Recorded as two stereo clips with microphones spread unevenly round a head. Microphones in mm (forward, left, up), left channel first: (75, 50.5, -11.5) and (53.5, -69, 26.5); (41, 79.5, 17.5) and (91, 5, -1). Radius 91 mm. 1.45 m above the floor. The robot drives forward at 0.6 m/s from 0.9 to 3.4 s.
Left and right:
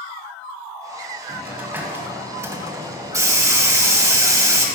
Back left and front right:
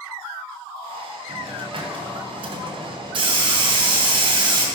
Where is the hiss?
40° right, 2 m; by 4.7 s 90° right, 1.6 m.